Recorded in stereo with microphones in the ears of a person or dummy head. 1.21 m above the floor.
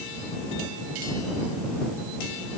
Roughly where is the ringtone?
I don't hear a ringtone.